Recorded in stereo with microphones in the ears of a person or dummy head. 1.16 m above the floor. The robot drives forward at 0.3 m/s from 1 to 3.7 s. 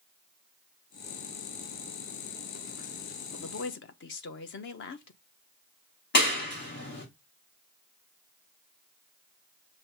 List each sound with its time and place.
3.3 s a woman speaking: 60° left (ahead or behind), 0.6 m; by 5.2 s 50° left (ahead or behind), 0.6 m
6.1 s a clap: 50° left (ahead or behind), 1.3 m